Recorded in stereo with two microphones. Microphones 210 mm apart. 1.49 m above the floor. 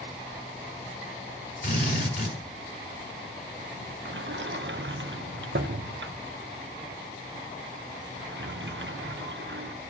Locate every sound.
1.6 s a drill: 55° left (ahead or behind), 4 m
4.0 s a sliding door: 60° right (ahead or behind), 0.6 m